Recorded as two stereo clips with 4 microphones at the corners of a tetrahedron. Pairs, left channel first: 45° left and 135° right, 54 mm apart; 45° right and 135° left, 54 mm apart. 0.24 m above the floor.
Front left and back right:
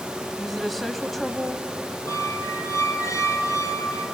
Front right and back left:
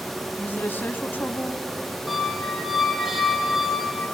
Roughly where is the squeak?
Ahead left.